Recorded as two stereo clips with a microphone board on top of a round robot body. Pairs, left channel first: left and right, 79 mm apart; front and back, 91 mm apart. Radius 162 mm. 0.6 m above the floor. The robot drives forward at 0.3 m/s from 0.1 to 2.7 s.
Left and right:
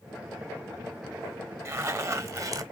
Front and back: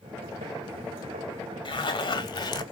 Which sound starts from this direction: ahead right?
A zipper, at 1.6 s.